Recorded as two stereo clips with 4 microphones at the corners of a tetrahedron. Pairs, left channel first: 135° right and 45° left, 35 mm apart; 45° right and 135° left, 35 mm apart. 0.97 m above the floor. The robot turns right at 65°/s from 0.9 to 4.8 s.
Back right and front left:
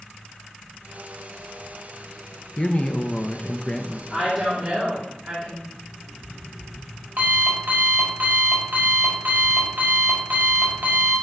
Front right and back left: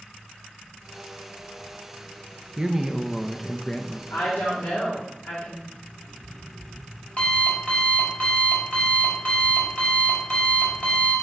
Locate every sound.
2.6 s a man speaking: 170° right, 0.6 m; by 4.0 s 80° right, 0.6 m
4.1 s a woman speaking: 40° right, 2.5 m; by 5.6 s 5° left, 2.5 m
5.7 s an alarm clock: 15° left, 2.5 m